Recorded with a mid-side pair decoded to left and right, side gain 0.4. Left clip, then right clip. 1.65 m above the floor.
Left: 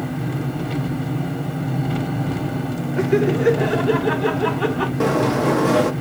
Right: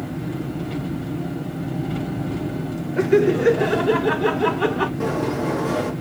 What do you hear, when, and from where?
0.0 s an engine running: 60° left, 1.1 m
3.0 s laughter: 5° right, 0.6 m
5.0 s a sliding door: 65° left, 0.6 m